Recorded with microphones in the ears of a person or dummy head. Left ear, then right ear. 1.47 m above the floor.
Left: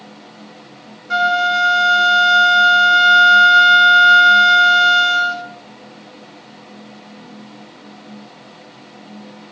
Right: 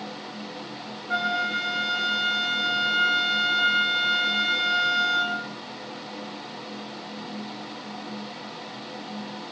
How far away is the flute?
About 1.1 m.